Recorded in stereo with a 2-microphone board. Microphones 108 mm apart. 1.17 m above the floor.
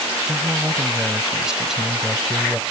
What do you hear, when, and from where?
0.2 s a man speaking: 15° right (ahead or behind); by 2.6 s 5° left (ahead or behind)